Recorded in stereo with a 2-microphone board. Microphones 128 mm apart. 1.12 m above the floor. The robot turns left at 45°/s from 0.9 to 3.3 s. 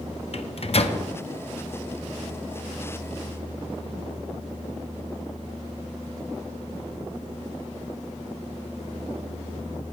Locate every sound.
0.3 s a microwave: 50° left (ahead or behind), 0.6 m; by 1.0 s 55° left (ahead or behind), 0.6 m